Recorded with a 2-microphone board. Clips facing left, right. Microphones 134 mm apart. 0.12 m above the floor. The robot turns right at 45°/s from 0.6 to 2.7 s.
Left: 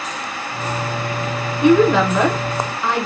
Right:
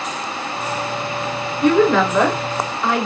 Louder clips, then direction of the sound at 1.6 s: Left 1 dB; 20° left (ahead or behind).